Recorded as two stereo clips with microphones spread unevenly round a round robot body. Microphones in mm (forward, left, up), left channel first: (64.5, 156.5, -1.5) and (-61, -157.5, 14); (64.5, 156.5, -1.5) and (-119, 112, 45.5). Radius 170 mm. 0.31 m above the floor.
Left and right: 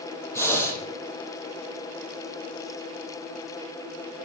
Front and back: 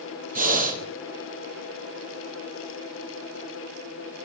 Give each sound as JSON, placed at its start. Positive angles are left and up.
{"t": 0.3, "sound": "breathing", "azimuth_deg": 150, "distance_m": 6.0}